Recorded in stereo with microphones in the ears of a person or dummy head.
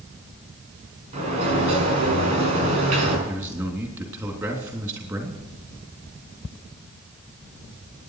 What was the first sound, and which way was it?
A sliding door, 40° right (ahead or behind).